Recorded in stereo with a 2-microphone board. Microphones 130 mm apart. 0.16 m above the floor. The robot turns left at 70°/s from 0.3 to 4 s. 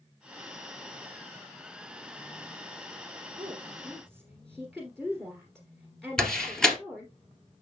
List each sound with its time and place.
3.4 s a woman speaking: 140° right, 2 m; by 7.1 s 175° left, 2 m
6.2 s a door slam: 5° left (ahead or behind), 1.9 m